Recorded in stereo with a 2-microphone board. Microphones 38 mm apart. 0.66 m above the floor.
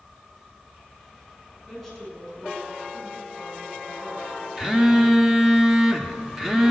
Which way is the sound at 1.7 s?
Centre (ahead or behind).